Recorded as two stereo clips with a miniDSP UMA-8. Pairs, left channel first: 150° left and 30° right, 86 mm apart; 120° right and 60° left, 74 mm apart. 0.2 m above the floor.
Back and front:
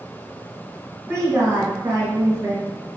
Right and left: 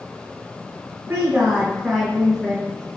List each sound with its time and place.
1.1 s a woman speaking: 15° left, 1.1 m; by 2.7 s 55° right, 1.4 m